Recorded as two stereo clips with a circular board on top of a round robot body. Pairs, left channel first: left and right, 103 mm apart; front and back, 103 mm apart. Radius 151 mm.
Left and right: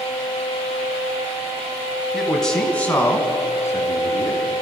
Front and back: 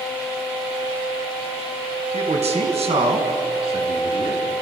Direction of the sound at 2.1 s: Straight behind.